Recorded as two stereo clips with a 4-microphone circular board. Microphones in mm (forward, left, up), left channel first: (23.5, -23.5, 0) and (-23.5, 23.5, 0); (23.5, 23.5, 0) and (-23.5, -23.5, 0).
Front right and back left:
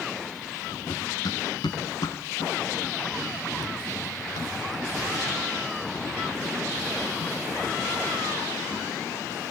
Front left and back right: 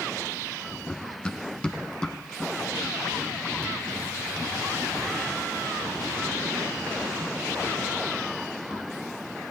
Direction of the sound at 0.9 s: 35° right.